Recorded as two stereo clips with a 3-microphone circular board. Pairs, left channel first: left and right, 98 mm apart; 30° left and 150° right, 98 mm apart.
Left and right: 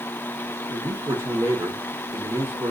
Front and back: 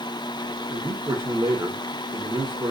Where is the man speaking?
140° right, 1.2 m.